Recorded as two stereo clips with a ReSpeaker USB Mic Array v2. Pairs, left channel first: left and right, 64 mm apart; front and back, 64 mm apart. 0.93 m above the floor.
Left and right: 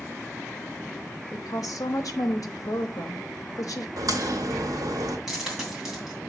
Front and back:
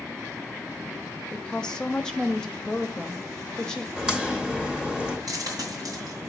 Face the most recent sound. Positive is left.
turn(degrees=-175)